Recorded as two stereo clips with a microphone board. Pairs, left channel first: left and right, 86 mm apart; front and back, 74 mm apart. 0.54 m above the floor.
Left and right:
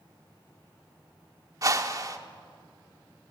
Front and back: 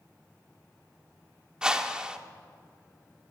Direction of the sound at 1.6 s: 105° right.